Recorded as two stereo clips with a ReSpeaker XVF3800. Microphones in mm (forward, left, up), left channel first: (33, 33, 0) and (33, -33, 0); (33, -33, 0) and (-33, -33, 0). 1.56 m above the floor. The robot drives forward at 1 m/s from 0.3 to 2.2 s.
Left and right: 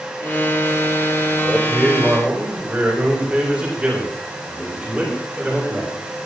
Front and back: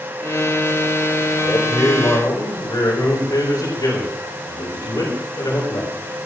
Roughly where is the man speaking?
Ahead.